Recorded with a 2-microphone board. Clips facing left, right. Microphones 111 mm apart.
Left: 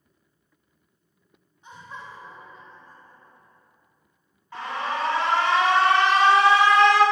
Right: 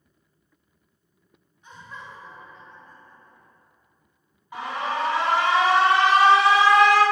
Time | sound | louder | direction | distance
1.6 | laughter | left 1 dB | 25° left (ahead or behind) | 1.1 m
4.5 | an alarm | right 1 dB | 15° right (ahead or behind) | 1.7 m